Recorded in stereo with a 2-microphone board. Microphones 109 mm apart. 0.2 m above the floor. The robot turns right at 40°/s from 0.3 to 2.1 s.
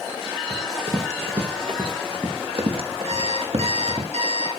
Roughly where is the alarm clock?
Right.